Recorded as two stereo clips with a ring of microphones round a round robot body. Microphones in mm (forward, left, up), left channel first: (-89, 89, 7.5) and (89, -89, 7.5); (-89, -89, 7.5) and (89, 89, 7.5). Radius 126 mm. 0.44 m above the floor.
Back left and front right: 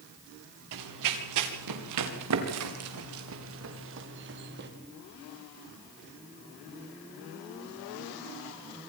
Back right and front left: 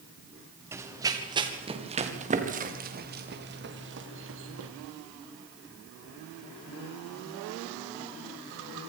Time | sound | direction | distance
0.7 | running footsteps | 35° right | 3.5 m